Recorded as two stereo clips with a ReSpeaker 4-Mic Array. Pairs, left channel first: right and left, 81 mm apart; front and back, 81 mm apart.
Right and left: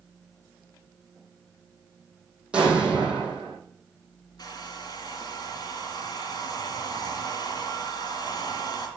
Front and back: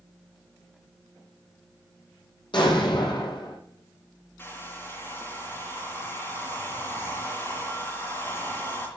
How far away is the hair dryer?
About 3.5 m.